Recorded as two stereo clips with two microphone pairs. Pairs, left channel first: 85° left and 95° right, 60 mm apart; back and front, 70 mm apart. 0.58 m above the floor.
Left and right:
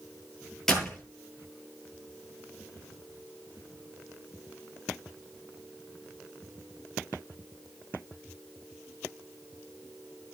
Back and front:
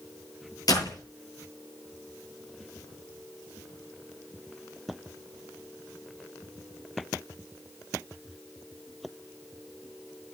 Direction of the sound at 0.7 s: 170° left.